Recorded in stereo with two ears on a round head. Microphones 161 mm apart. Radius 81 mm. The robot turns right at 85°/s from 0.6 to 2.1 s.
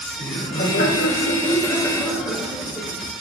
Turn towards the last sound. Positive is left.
turn(degrees=-170)